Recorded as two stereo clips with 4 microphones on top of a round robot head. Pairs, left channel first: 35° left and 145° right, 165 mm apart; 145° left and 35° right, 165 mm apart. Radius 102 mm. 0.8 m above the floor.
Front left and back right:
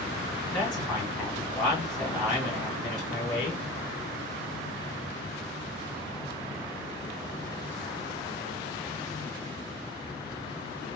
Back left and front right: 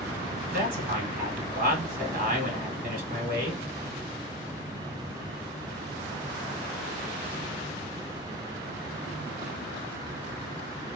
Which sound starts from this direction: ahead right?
A man speaking, at 0.5 s.